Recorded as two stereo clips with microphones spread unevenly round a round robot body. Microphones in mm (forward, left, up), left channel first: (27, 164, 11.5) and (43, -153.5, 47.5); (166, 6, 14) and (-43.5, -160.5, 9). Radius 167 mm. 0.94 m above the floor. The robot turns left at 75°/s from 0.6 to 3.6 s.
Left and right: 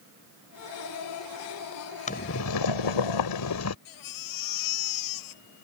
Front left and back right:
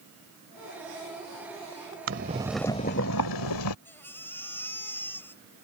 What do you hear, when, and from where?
2.1 s boiling: 165° left; by 3.8 s 50° left
3.9 s a baby crying: 120° left